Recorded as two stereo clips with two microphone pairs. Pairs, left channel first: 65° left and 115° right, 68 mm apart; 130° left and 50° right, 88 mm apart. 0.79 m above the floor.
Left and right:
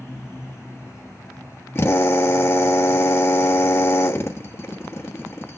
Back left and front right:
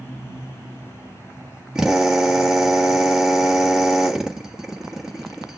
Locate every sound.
1.8 s a drill: 30° left, 1.4 m